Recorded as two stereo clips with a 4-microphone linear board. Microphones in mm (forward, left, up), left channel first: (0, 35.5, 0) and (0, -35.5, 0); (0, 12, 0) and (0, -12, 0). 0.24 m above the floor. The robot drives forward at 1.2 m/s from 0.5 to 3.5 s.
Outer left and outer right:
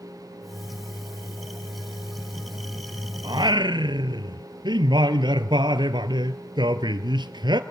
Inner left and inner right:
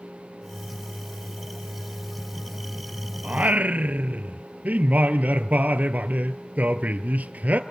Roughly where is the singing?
Right.